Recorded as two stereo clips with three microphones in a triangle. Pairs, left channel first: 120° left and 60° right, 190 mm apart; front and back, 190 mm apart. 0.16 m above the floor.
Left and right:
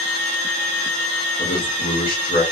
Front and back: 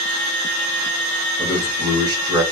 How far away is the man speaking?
About 1.9 m.